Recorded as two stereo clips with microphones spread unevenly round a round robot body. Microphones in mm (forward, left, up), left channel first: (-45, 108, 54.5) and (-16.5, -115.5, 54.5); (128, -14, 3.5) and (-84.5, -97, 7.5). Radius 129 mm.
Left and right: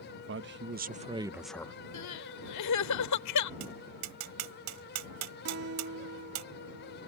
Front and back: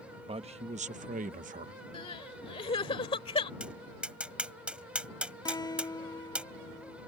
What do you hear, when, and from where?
0.3 s a man speaking: 95° right; by 1.7 s 160° left
1.9 s crying: 90° left
3.6 s tapping: 75° right
5.5 s a guitar: 50° right